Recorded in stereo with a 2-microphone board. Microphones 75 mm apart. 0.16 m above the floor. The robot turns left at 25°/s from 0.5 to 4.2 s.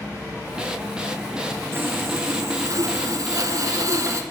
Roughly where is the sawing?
Ahead right.